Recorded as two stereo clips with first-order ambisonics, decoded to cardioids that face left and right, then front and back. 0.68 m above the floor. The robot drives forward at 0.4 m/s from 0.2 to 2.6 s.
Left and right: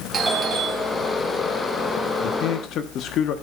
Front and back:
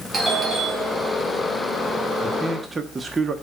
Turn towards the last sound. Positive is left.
turn(degrees=110)